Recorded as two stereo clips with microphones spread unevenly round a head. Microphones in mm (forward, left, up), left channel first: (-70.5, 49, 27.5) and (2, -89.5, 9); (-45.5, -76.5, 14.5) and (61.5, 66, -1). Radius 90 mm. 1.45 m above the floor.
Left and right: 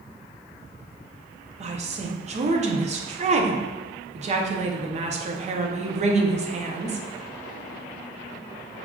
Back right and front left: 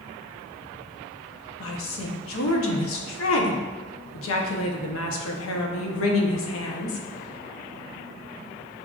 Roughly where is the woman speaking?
Behind right.